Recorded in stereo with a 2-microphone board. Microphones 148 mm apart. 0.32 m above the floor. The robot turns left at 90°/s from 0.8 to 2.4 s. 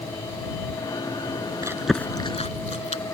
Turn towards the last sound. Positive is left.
turn(degrees=45)  # may be behind; listen again after turning